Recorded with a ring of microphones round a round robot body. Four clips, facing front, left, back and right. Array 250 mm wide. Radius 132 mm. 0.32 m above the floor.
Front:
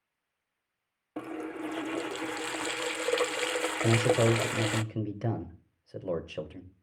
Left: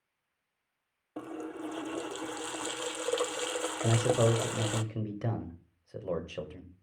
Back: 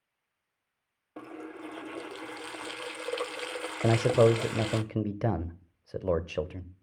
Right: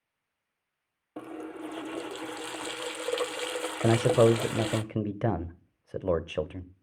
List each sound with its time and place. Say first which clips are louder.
1.2 s a running tap: even, front 5 dB; 10° right, 0.6 m
3.8 s a man speaking: right 6 dB, back 3 dB; 125° right, 1.1 m